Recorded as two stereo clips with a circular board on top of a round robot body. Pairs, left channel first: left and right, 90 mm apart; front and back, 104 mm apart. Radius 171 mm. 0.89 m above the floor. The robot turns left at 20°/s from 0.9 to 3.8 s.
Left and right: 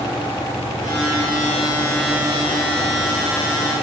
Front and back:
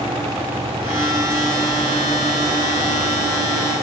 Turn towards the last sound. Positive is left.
No sound to turn to.